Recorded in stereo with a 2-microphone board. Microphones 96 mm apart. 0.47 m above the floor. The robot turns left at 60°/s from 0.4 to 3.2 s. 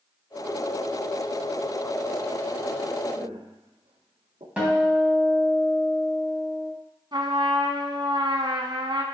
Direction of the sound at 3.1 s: 75° right (ahead or behind).